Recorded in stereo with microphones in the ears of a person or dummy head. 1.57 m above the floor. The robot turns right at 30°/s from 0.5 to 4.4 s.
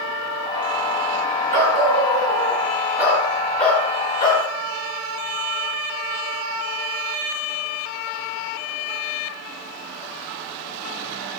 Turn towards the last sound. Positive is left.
turn(degrees=30)